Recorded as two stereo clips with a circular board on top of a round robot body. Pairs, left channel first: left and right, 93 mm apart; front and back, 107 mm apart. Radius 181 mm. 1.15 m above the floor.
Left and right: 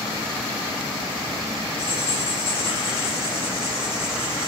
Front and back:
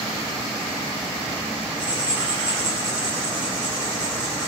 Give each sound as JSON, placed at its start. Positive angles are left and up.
{"t": 1.8, "sound": "writing", "azimuth_deg": 100, "distance_m": 4.5}